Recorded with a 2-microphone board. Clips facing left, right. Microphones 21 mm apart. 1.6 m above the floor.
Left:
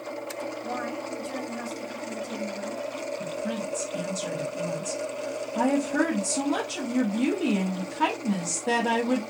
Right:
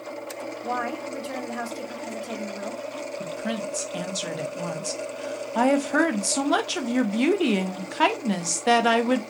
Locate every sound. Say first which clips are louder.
0.6 s a woman speaking: right 7 dB; 70° right (ahead or behind), 1.3 m
3.2 s a woman speaking: right 4 dB; 65° right (ahead or behind), 0.8 m